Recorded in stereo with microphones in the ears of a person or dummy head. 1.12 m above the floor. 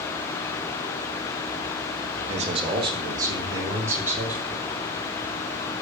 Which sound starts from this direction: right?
A man speaking, at 2.3 s.